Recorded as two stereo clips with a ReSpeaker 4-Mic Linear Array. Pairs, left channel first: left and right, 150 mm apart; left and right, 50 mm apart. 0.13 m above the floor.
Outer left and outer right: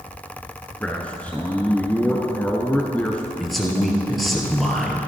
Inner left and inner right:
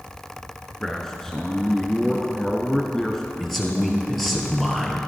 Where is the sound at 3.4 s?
Centre (ahead or behind), 2.0 m.